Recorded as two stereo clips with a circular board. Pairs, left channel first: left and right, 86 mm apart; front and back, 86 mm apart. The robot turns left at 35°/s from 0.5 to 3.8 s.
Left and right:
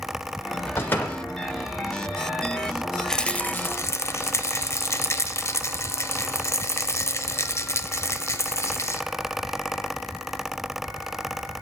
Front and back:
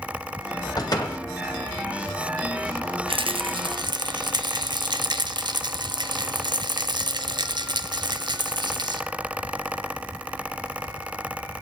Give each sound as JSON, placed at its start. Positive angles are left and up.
{"t": 0.8, "sound": "a door slam", "azimuth_deg": 30, "distance_m": 1.4}
{"t": 3.1, "sound": "a rattle", "azimuth_deg": 175, "distance_m": 0.6}